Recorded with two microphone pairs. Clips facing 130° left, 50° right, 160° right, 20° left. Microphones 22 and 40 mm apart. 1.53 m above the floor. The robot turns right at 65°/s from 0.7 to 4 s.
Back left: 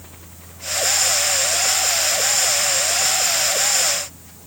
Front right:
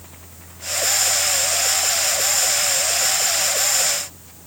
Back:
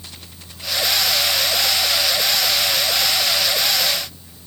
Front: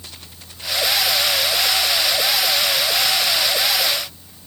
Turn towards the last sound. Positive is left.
No sound to turn to.